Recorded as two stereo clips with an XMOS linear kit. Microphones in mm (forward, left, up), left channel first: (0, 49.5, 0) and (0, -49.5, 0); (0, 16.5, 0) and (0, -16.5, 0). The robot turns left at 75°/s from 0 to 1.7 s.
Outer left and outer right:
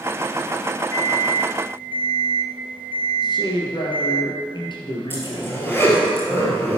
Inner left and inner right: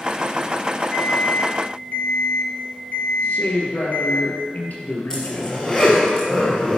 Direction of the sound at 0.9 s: 150° left.